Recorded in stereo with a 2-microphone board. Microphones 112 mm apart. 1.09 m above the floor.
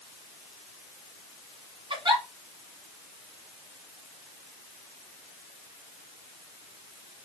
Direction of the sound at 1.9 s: 45° right (ahead or behind).